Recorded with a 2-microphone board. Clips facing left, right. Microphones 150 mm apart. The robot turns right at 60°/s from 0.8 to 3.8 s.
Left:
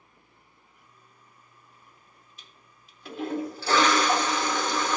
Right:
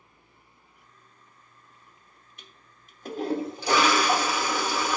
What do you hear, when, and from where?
2.4 s a toilet flushing: 95° right, 1.0 m; by 5.0 s 10° right, 1.0 m